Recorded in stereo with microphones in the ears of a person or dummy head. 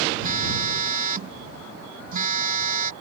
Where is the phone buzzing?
40° right (ahead or behind).